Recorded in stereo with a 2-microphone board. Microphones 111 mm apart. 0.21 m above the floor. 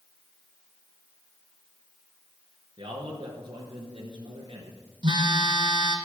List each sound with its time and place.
2.8 s a man speaking: 45° right (ahead or behind), 3.5 m
5.0 s a phone buzzing: 45° right (ahead or behind), 3 m